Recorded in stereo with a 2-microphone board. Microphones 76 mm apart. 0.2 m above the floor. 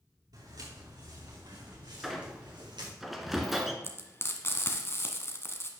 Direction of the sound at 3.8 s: 30° left (ahead or behind).